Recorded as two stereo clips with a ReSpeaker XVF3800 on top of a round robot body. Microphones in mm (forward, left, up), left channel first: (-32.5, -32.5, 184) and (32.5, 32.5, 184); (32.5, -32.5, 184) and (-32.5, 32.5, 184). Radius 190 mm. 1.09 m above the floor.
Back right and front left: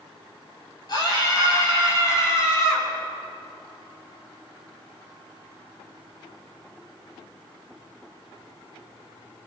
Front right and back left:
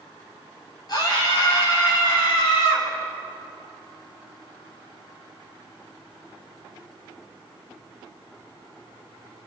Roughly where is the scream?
Right.